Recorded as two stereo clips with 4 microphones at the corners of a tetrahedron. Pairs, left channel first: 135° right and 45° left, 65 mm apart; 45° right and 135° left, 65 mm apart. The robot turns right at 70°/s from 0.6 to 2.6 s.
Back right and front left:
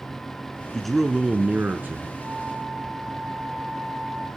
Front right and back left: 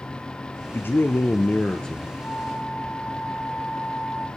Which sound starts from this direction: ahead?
A flute, at 2.2 s.